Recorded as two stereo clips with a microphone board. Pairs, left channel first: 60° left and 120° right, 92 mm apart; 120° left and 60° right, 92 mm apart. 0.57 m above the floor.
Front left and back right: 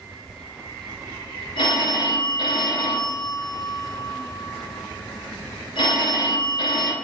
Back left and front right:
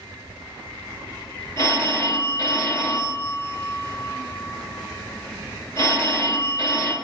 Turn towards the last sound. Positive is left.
turn(degrees=70)